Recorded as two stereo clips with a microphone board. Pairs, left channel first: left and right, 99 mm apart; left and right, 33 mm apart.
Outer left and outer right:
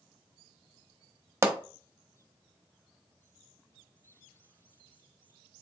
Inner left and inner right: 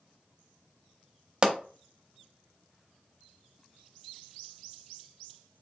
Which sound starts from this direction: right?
A pop, at 1.4 s.